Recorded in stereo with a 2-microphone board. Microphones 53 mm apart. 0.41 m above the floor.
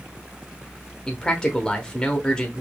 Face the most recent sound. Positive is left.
turn(degrees=15)  # may be behind; listen again after turning